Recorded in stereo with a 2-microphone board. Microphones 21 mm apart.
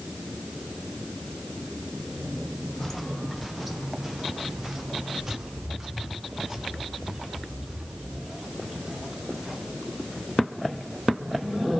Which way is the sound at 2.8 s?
10° left (ahead or behind).